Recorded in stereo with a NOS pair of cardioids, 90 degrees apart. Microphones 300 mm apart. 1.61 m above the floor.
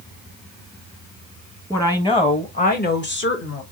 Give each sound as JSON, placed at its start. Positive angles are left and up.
{"t": 1.7, "sound": "a woman speaking", "azimuth_deg": 10, "distance_m": 1.6}